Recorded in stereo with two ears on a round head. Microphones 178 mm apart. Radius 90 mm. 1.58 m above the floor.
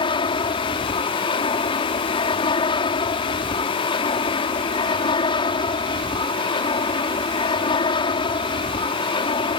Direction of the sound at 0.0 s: 25° left (ahead or behind).